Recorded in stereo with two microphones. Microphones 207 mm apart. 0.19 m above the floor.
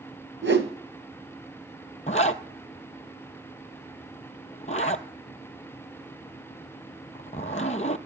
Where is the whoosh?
70° right (ahead or behind), 1.5 m.